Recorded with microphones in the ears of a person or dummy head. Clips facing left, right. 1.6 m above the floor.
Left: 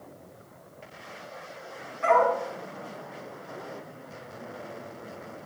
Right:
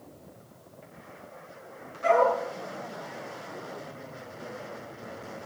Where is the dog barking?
55° left (ahead or behind), 5.5 m.